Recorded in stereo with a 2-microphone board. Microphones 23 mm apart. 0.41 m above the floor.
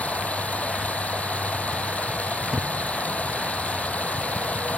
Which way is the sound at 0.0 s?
85° left.